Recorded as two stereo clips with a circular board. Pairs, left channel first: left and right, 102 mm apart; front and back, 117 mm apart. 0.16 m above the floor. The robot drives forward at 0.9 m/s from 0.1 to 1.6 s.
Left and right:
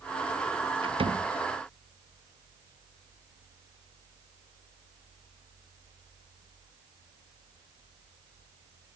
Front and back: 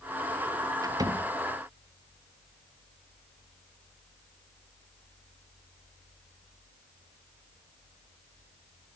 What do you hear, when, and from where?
0.8 s a door slam: 120° right; by 1.3 s 125° right